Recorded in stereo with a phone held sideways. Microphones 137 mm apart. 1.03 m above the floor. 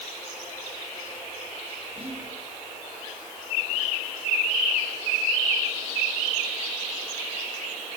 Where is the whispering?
45° right (ahead or behind), 9.5 m.